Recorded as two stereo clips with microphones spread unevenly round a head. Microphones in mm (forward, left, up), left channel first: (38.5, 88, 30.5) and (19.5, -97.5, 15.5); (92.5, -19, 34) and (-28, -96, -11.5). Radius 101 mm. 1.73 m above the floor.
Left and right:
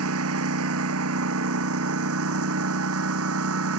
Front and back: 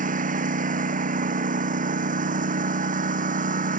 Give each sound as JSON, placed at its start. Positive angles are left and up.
{"t": 0.0, "sound": "a lawn mower", "azimuth_deg": -115}